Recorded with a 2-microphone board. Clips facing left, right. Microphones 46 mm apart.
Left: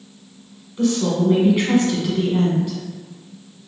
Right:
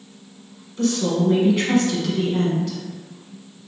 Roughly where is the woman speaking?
Centre.